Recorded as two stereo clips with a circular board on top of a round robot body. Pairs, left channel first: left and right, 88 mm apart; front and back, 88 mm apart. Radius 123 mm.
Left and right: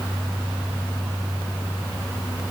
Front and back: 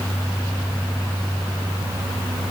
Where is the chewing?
No chewing in this recording.